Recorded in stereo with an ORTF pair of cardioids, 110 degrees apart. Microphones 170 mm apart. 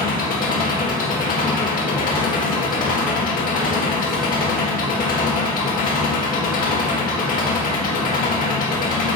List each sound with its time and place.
0.0 s an engine running: 60° left, 1.9 m